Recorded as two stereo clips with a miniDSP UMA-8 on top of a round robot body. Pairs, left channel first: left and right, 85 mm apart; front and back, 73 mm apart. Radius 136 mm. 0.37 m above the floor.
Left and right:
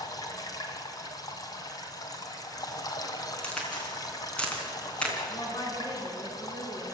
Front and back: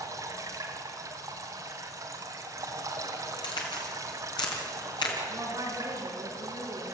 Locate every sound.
0.0 s running water: 135° left, 2.5 m
3.4 s a crack: 10° left, 4 m
5.3 s a woman speaking: 135° left, 5.5 m